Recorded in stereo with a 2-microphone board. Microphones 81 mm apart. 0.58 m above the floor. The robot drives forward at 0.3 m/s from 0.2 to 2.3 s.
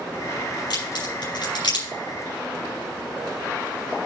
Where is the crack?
70° left (ahead or behind), 6 m.